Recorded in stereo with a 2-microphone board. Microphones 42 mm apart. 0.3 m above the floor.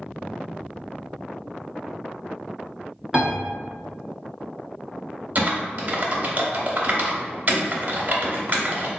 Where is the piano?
15° right (ahead or behind), 0.8 m.